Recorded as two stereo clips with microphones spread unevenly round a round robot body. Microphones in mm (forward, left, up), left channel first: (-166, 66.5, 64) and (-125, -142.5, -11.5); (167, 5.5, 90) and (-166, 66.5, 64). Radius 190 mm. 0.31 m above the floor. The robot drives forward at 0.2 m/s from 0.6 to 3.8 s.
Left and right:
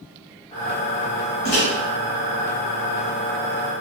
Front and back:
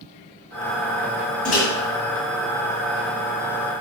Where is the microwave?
55° left, 1.9 m.